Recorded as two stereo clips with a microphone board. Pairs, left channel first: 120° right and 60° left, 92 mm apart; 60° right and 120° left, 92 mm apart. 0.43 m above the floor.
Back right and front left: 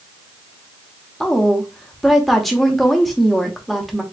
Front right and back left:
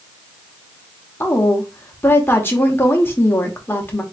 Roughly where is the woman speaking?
Ahead right.